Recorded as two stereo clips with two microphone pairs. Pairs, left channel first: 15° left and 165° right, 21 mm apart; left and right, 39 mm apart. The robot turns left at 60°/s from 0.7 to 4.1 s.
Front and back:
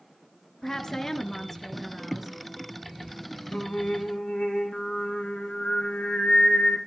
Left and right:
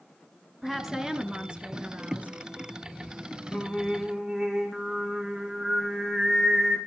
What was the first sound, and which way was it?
A woman speaking, straight ahead.